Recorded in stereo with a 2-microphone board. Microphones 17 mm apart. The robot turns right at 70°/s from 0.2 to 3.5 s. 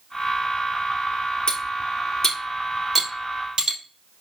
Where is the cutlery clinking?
60° left (ahead or behind), 2.5 m; by 3.8 s 65° right (ahead or behind), 2.5 m.